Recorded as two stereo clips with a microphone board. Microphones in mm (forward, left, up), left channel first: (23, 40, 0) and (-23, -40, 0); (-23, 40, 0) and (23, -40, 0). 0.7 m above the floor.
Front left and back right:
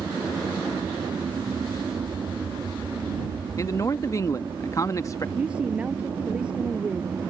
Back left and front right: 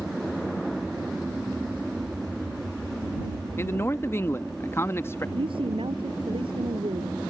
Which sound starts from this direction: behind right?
An aircraft, at 0.0 s.